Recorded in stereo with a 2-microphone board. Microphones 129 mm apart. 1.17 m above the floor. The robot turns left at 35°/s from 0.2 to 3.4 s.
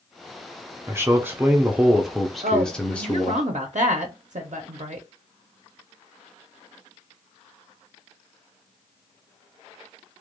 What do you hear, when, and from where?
0.9 s a man speaking: 20° right (ahead or behind), 0.5 m; by 3.4 s 15° left (ahead or behind), 0.5 m
2.4 s a woman speaking: 75° right, 0.5 m; by 5.1 s 110° right, 0.5 m